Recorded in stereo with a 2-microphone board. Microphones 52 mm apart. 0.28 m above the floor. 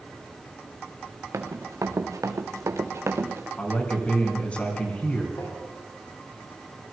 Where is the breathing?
I don't hear breathing.